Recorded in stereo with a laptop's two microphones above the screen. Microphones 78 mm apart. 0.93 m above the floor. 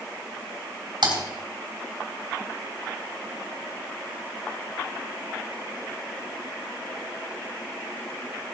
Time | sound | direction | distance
1.0 | typing on a keyboard | 75° right (ahead or behind) | 3 m